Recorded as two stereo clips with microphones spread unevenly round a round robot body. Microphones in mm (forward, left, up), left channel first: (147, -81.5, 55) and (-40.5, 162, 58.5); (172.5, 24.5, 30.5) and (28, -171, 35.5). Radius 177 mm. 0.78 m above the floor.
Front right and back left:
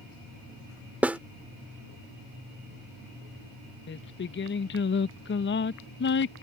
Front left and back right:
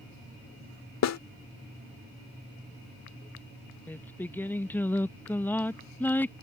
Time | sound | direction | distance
1.0 | a snare drum | 40° left | ?
3.9 | singing | 25° right | ?